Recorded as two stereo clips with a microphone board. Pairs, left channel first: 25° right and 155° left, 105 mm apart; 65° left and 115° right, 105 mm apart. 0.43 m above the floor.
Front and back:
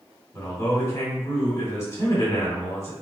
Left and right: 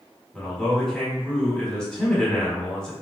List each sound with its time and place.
0.3 s a man speaking: 5° right, 1.5 m